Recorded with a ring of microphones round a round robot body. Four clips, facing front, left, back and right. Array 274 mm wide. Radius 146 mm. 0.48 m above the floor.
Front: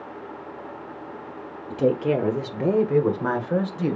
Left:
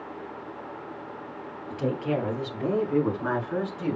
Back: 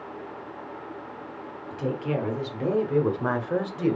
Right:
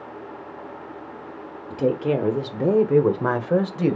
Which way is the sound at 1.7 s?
30° right.